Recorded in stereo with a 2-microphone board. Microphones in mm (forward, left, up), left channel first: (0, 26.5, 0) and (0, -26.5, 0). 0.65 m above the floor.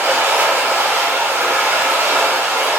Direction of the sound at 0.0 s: 55° right (ahead or behind).